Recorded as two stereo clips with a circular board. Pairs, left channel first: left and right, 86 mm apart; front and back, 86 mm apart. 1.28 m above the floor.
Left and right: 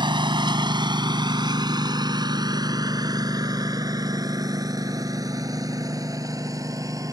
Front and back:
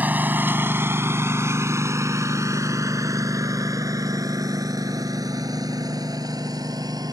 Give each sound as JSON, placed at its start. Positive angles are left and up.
{"t": 0.0, "sound": "a lawn mower", "azimuth_deg": -110}